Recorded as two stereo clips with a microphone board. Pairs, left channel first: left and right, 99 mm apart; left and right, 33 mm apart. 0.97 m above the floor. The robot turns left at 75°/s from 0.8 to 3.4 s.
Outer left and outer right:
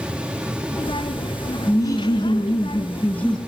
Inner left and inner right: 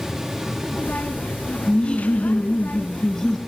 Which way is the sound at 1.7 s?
135° left.